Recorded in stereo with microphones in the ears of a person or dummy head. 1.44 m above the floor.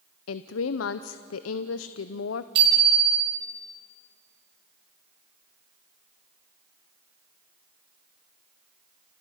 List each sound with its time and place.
0.3 s a woman speaking: 90° left, 0.6 m
2.5 s a bicycle bell: 30° right (ahead or behind), 6 m